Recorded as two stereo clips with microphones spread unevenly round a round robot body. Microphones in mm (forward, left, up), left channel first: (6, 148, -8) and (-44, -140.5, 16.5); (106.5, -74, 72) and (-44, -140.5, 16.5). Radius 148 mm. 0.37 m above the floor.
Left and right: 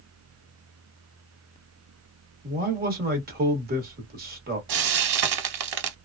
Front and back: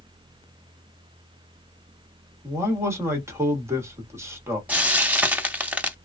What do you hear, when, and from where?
2.4 s a man speaking: 140° right, 1.1 m
4.7 s frying: 75° right, 0.7 m